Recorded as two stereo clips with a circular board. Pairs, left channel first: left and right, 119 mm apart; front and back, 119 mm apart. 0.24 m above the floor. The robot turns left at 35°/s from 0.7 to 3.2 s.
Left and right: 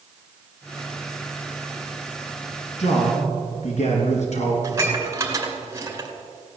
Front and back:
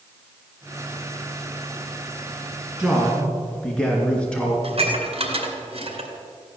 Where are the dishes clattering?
155° right, 2.5 m.